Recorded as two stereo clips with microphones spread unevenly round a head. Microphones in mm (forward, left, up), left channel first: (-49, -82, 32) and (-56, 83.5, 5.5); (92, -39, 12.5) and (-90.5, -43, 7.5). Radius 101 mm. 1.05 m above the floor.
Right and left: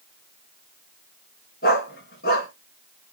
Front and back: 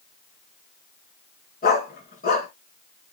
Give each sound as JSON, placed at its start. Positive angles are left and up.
{"t": 1.6, "sound": "a dog barking", "azimuth_deg": -40, "distance_m": 5.0}